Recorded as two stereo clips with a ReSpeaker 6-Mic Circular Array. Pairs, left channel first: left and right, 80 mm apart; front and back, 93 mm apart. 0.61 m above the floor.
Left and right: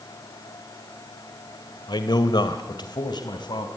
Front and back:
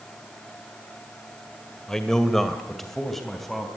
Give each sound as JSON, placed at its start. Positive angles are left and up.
{"t": 1.9, "sound": "a man speaking", "azimuth_deg": 85, "distance_m": 1.9}